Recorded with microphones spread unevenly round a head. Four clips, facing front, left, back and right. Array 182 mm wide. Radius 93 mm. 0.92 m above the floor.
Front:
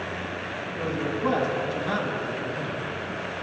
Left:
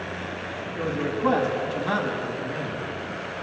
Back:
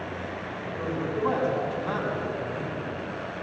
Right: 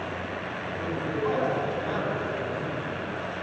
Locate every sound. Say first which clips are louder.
0.8 s a man speaking: left 4 dB, even; 70° left, 7 m